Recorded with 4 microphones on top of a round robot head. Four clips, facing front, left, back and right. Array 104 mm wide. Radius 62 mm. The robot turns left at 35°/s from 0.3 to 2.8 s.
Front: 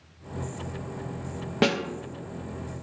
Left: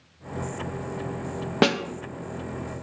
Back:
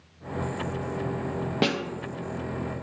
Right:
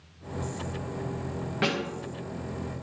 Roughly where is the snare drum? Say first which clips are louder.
Left 7 dB, front 3 dB; left.